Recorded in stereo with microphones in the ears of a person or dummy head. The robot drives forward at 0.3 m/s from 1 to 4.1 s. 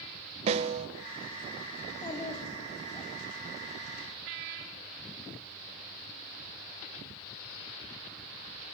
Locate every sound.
0.5 s a snare drum: 35° right (ahead or behind), 1.0 m
1.8 s a child speaking: 30° left (ahead or behind), 2.5 m; by 3.1 s 25° left (ahead or behind), 3 m